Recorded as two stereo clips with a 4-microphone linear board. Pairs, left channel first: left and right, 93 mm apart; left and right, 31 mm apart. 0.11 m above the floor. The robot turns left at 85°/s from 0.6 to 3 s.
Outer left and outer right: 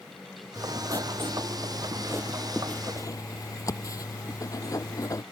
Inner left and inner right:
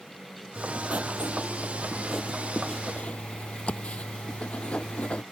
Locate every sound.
0.6 s writing: 20° right; by 5.2 s 135° left